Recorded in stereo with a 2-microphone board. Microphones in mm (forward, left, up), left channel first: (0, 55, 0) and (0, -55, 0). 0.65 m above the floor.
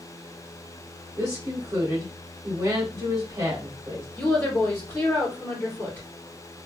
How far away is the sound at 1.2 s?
About 1.8 m.